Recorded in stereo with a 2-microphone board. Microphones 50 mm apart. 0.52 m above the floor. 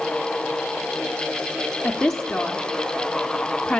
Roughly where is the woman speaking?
Centre.